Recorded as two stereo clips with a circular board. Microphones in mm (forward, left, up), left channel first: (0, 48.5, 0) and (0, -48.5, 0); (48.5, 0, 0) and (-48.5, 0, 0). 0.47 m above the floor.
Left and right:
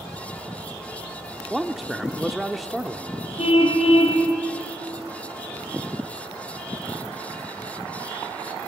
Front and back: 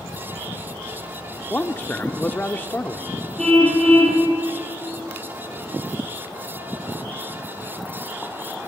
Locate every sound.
1.5 s a man speaking: 5° right, 0.7 m
3.4 s a car horn: 85° left, 7 m